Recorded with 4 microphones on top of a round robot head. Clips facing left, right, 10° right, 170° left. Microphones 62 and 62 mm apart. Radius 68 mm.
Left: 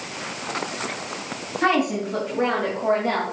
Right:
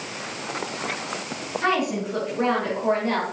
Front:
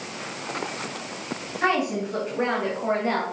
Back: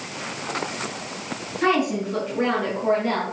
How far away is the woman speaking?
About 3.5 m.